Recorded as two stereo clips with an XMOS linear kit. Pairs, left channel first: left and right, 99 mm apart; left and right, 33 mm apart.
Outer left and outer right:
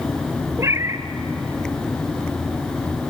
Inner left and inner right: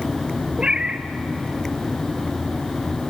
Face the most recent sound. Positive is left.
turn(degrees=-30)  # may be behind; listen again after turning